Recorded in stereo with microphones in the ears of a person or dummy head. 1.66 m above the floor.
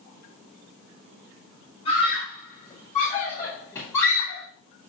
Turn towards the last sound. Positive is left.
turn(degrees=10)  # may be behind; listen again after turning